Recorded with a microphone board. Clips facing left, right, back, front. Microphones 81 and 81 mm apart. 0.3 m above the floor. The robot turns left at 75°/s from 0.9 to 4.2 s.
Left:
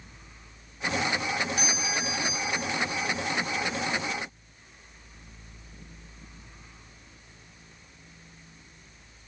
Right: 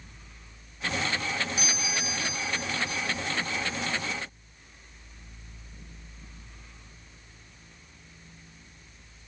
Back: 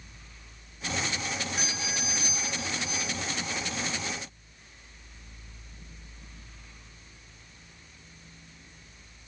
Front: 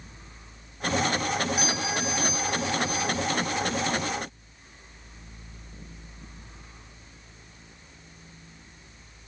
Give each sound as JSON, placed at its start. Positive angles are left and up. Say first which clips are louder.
{"t": 1.6, "sound": "a doorbell", "louder": "left 2 dB, front 7 dB", "azimuth_deg": 75, "distance_m": 2.5}